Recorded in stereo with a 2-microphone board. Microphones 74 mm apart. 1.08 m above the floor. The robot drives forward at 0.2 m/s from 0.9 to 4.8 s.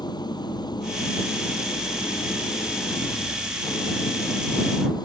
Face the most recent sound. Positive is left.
turn(degrees=70)  # may be behind; listen again after turning